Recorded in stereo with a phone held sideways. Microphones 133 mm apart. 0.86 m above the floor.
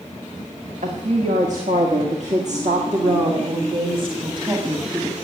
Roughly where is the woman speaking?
Right.